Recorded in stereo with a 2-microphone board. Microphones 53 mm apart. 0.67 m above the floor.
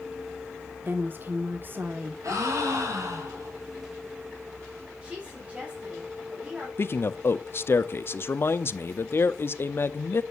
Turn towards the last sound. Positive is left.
turn(degrees=45)  # may be behind; listen again after turning